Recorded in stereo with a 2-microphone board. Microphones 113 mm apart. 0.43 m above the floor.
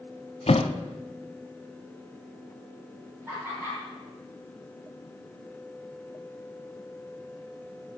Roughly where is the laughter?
Centre.